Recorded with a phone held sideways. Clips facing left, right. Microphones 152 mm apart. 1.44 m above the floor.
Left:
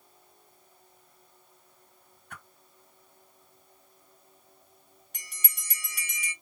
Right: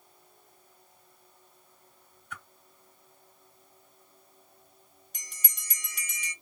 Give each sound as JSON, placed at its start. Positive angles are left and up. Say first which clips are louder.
{"t": 2.3, "sound": "a whoosh", "louder": "right 2 dB", "side_deg": 75, "distance_m": 3.0}
{"t": 5.1, "sound": "a bell", "louder": "left 2 dB", "side_deg": 65, "distance_m": 2.5}